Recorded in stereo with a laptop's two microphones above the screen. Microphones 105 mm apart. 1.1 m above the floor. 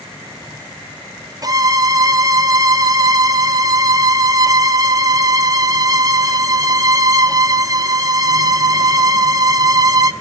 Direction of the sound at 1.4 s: 35° right (ahead or behind).